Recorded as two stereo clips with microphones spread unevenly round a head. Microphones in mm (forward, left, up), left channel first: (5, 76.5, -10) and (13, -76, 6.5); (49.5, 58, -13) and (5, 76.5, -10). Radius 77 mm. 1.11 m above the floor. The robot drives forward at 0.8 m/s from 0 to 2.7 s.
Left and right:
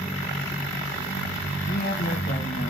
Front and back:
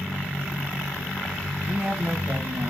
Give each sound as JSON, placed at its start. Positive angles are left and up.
{"t": 1.7, "sound": "a woman speaking", "azimuth_deg": 95, "distance_m": 1.5}